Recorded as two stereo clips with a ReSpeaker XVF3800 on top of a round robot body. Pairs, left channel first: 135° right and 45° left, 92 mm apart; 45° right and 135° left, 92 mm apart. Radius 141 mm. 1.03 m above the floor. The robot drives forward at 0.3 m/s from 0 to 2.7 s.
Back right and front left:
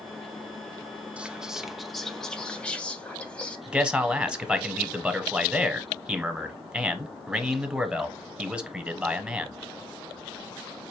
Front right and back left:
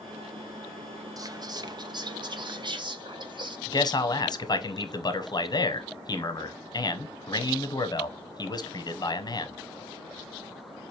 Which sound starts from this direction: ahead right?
A man speaking, at 3.7 s.